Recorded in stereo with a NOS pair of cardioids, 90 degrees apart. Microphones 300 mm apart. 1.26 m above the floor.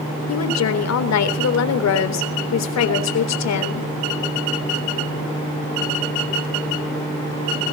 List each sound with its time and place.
0.3 s a woman speaking: 60° left, 3.5 m